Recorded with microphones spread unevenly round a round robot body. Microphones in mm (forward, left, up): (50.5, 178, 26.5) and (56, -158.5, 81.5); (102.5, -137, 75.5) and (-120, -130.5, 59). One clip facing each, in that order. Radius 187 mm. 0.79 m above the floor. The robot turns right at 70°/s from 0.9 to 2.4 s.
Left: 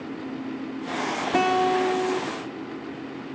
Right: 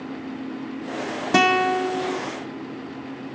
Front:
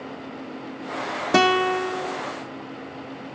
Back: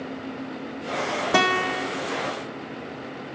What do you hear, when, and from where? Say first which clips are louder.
1.3 s a guitar: right 1 dB, front 6 dB; 70° right, 1.6 m; by 2.2 s 5° right, 1.6 m